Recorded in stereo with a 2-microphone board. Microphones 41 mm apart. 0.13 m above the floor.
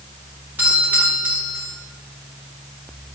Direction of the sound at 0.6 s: 55° right (ahead or behind).